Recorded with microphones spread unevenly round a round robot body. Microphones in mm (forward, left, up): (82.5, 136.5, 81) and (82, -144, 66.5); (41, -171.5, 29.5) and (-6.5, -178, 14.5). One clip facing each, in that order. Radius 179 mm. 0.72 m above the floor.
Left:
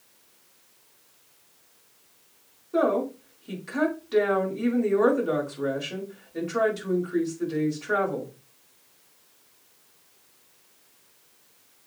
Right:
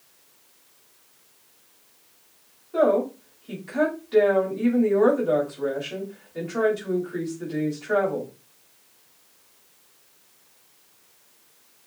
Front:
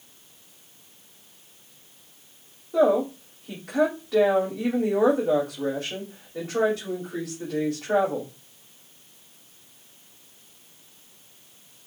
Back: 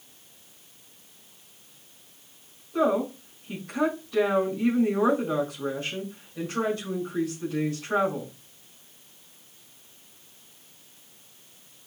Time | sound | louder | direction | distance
2.7 | a woman speaking | right 3 dB, front 4 dB | 65° left | 4.5 m